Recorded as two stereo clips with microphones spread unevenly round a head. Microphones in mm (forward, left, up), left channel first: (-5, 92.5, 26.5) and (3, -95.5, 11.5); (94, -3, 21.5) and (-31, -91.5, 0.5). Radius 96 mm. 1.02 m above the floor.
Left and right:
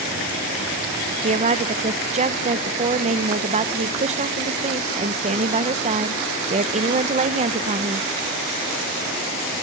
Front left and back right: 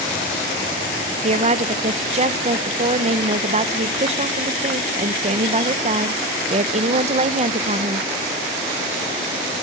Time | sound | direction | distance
1.2 | a woman speaking | 130° right | 0.8 m